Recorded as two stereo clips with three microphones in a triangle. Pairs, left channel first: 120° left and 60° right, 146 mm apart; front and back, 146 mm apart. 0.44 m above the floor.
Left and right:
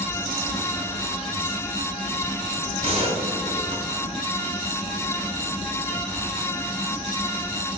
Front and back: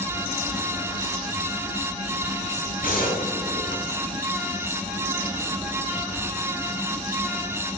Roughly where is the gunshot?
Ahead.